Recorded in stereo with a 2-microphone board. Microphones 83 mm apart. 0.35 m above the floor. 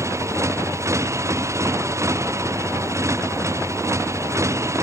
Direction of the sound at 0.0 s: 35° right (ahead or behind).